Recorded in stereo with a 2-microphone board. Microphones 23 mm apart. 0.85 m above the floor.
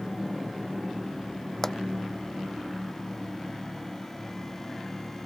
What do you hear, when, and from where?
1.6 s a pop: 15° left (ahead or behind)